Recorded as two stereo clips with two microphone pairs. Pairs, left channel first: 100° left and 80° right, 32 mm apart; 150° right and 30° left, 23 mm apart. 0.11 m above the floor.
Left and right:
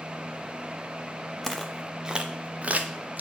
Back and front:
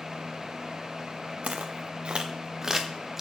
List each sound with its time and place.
1.4 s footsteps: 20° left, 1.1 m; by 3.2 s 50° right, 1.5 m